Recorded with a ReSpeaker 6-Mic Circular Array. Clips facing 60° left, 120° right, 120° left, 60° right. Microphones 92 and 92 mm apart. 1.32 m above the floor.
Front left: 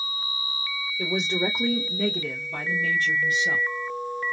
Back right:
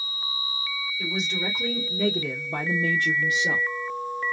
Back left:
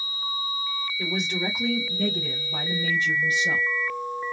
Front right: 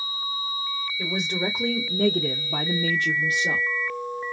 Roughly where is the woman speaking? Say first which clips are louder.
Front left 5 dB, front right 1 dB; ahead.